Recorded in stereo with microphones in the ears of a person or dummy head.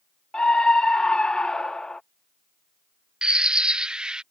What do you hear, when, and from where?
0.3 s a scream: centre (ahead or behind)
3.2 s a bird: 10° right (ahead or behind)